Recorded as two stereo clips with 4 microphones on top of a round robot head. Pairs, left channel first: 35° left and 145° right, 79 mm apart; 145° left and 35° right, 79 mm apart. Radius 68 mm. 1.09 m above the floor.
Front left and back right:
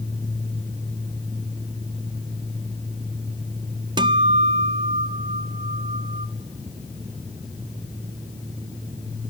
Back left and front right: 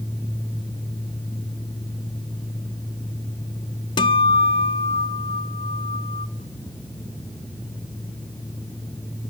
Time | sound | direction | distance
4.0 | a guitar | straight behind | 0.7 m